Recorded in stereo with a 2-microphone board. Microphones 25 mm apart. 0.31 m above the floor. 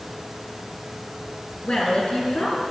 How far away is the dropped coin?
I don't hear a dropped coin.